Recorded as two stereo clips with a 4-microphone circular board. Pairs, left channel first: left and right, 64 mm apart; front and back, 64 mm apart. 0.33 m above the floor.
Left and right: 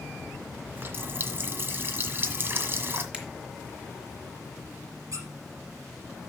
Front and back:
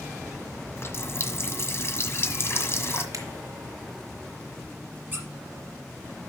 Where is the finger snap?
165° right, 2.5 m.